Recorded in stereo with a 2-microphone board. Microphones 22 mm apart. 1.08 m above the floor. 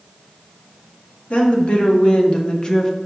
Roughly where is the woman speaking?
Left.